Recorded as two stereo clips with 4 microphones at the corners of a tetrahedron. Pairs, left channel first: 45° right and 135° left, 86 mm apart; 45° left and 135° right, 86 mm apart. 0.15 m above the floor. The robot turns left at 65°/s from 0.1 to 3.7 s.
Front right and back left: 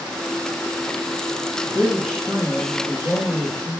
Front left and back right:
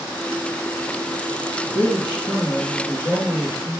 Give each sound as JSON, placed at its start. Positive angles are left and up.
{"t": 1.6, "sound": "a man speaking", "azimuth_deg": 75, "distance_m": 3.0}